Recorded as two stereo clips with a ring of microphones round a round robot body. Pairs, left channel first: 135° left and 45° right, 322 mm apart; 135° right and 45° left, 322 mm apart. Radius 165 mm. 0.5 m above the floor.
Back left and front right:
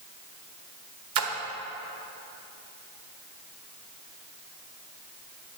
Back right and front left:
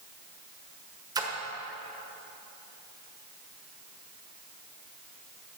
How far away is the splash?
About 1.3 m.